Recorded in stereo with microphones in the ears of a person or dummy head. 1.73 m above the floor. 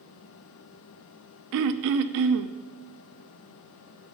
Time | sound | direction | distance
1.5 | throat clearing | 65° right (ahead or behind) | 0.6 m